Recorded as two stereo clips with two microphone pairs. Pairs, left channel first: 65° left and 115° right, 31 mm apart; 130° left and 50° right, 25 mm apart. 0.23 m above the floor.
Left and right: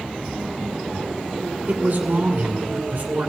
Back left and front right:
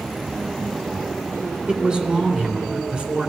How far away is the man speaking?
About 2.5 m.